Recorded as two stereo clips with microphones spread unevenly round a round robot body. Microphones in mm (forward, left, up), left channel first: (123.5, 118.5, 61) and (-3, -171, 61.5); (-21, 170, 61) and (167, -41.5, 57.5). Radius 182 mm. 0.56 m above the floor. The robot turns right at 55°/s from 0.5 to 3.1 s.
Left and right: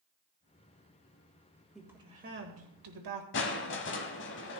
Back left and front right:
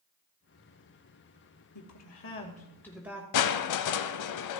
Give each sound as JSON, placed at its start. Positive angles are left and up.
{"t": 1.8, "sound": "a woman speaking", "azimuth_deg": 155, "distance_m": 2.5}
{"t": 3.3, "sound": "crushing", "azimuth_deg": 125, "distance_m": 0.7}